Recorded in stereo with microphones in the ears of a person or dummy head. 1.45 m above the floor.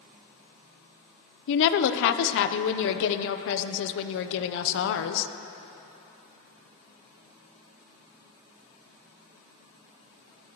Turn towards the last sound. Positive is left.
turn(degrees=70)  # may be behind; listen again after turning